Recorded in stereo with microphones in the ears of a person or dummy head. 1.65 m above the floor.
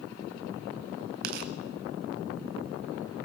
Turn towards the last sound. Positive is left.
turn(degrees=-50)  # may be behind; listen again after turning